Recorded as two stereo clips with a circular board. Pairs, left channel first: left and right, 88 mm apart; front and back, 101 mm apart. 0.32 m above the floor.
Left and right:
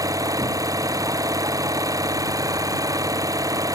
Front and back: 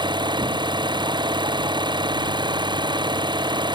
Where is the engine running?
140° right.